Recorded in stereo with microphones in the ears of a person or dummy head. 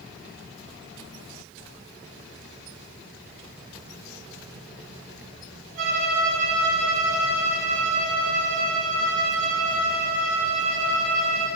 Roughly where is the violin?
Right.